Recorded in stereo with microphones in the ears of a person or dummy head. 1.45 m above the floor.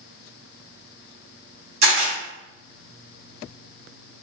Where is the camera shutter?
50° right (ahead or behind), 1.8 m.